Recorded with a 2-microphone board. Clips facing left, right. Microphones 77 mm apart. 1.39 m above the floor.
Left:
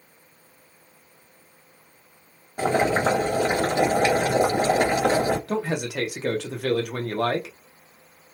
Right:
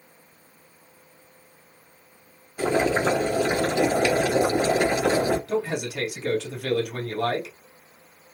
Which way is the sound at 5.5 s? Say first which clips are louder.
Even; 60° left (ahead or behind).